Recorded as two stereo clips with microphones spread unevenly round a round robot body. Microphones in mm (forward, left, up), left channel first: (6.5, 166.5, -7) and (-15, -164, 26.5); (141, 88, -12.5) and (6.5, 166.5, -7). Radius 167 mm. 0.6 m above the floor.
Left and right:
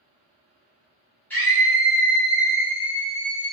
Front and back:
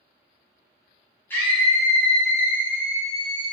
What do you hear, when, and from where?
1.3 s a scream: 20° left, 0.9 m; by 3.5 s 155° left, 1.3 m